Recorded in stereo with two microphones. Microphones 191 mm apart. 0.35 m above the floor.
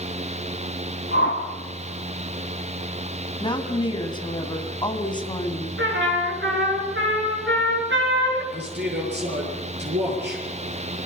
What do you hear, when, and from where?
1.1 s a whoosh: 75° left (ahead or behind), 2.5 m
3.4 s a woman speaking: 25° left (ahead or behind), 3 m
5.8 s a trumpet: 75° right (ahead or behind), 6 m
8.5 s a man speaking: 60° right (ahead or behind), 7.5 m